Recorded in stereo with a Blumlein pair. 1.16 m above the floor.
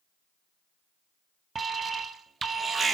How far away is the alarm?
About 0.9 m.